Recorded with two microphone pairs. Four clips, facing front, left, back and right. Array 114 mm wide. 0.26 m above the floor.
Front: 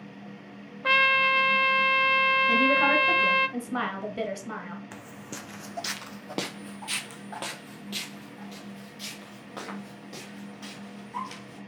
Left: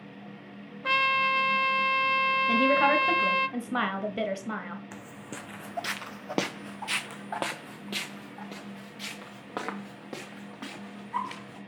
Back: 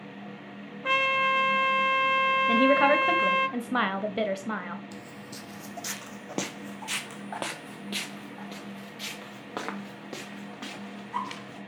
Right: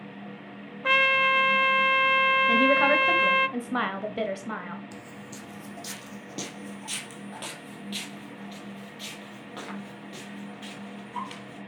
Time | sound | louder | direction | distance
0.8 | a trumpet | right 3 dB, front 2 dB | 45° right | 0.5 m
2.5 | a woman speaking | even, back 4 dB | 170° right | 1.0 m
4.9 | footsteps | even, front 1 dB | 35° left | 0.8 m